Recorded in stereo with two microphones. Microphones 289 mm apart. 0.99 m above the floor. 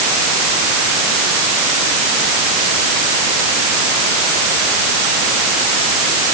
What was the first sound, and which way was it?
Only background noise.